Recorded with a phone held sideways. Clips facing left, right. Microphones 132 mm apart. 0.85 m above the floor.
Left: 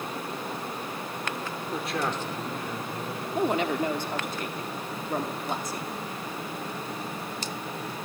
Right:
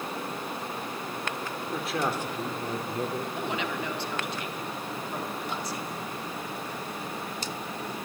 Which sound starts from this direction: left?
A woman speaking, at 3.4 s.